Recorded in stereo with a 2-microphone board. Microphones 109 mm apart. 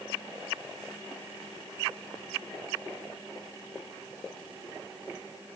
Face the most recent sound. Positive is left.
No sound to turn to.